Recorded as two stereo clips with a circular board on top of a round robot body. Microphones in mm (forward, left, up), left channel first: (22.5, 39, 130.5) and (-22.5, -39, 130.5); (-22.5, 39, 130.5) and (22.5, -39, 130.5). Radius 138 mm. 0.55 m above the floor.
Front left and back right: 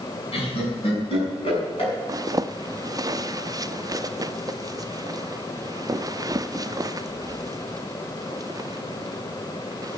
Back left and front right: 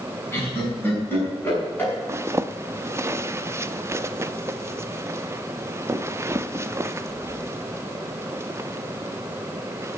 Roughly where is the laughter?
Ahead left.